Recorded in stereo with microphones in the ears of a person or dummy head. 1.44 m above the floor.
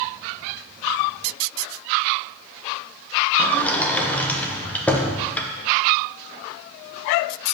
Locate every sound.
3.4 s a sliding door: 10° left (ahead or behind), 1.0 m